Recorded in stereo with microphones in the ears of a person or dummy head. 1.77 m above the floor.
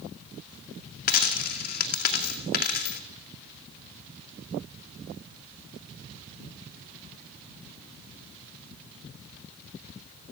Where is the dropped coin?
50° left (ahead or behind), 2 m.